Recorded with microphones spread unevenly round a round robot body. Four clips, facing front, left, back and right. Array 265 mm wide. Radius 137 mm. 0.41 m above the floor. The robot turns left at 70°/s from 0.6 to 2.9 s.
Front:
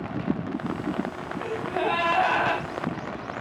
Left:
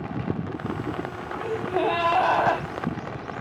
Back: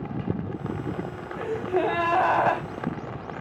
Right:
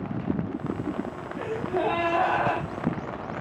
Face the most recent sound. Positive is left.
turn(degrees=90)